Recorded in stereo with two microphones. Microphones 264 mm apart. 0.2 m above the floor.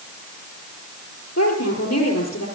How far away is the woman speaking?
About 5 m.